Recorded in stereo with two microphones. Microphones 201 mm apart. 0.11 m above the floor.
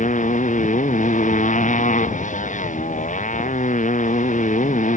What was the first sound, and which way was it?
A motorcycle, 40° left (ahead or behind).